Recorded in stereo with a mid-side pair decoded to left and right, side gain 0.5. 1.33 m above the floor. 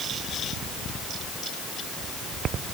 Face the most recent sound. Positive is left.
No sound to turn to.